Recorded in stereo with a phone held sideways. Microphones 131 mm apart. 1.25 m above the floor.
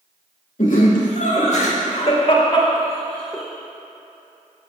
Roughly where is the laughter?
Left.